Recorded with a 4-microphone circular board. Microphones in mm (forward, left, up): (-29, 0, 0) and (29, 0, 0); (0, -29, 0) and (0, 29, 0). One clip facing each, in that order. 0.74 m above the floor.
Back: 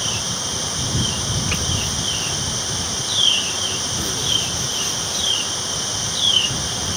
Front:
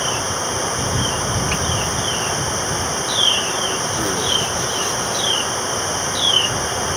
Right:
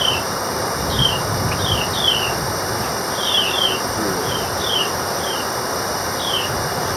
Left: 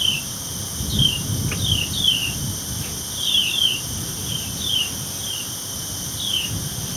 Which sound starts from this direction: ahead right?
Running water, at 0.0 s.